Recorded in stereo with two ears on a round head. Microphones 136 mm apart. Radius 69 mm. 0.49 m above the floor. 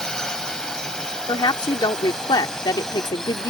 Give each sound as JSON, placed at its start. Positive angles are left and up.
{"t": 0.0, "sound": "a drone", "side_deg": 5}
{"t": 1.3, "sound": "a woman speaking", "side_deg": 30}